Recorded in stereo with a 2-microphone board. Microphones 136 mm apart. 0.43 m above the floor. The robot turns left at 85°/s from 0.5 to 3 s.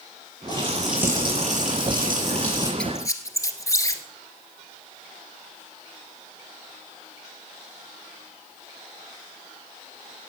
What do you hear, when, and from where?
0.5 s a running tap: 30° left, 7 m; by 2.7 s 155° right, 7 m
2.8 s a squeak: 5° left (ahead or behind), 1.4 m; by 4.0 s 25° left (ahead or behind), 1.4 m